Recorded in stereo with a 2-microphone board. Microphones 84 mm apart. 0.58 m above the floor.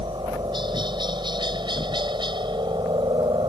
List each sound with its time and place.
0.0 s a helicopter: 60° right (ahead or behind)